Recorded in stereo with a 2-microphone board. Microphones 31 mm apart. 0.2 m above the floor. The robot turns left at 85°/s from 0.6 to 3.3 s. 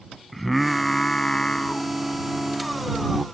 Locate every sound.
0.3 s singing: 170° left; by 3.2 s 55° right